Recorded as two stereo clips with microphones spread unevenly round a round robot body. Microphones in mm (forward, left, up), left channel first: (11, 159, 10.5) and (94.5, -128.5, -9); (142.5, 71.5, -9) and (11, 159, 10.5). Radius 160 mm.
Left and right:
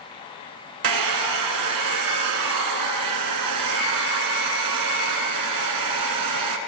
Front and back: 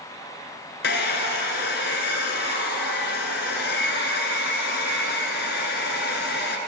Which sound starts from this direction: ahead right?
A hair dryer, at 0.8 s.